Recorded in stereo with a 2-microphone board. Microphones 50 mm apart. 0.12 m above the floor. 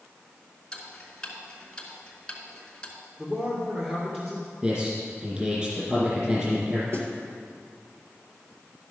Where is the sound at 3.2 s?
30° right (ahead or behind), 2 m.